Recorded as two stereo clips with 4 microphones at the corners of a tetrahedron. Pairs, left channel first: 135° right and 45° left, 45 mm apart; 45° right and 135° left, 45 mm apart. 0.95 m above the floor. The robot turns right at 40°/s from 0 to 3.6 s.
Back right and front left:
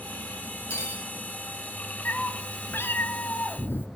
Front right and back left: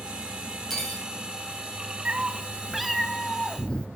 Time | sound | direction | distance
0.7 | cutlery clinking | 130° right | 2 m
2.0 | a cat meowing | 170° right | 0.6 m